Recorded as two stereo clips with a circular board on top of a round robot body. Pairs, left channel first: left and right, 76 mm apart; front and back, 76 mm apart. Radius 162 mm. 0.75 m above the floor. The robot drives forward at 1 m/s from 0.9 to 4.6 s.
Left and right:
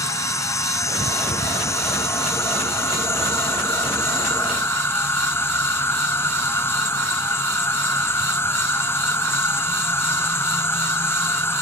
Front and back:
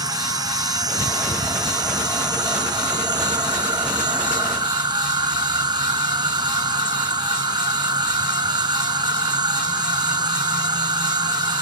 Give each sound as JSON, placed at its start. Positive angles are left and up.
{"t": 0.0, "sound": "an insect", "azimuth_deg": 140}